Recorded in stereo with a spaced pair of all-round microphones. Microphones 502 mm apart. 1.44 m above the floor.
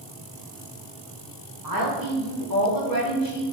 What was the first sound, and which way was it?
A woman speaking, 40° right (ahead or behind).